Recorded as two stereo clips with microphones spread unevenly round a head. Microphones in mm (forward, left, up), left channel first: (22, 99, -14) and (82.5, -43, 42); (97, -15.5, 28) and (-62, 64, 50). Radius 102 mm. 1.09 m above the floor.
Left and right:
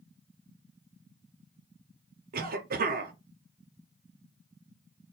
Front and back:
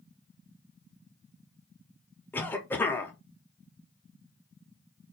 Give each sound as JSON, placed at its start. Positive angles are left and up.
{"t": 2.3, "sound": "a cough", "azimuth_deg": -85, "distance_m": 0.7}